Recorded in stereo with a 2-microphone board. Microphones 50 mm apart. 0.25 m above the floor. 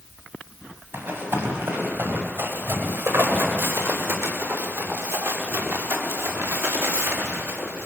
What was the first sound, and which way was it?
Running footsteps, 60° right (ahead or behind).